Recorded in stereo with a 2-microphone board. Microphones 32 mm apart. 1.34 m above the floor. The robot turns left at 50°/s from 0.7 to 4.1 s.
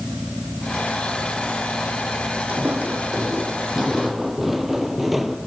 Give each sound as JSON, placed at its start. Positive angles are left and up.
{"t": 2.5, "sound": "footsteps", "side_deg": -65, "distance_m": 3.0}